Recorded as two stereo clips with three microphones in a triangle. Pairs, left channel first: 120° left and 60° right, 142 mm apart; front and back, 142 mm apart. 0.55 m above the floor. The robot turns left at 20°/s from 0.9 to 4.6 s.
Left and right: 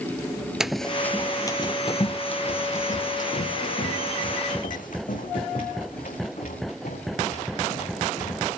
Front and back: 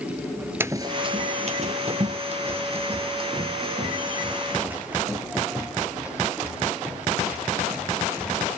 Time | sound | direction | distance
0.6 | running footsteps | 140° right | 0.5 m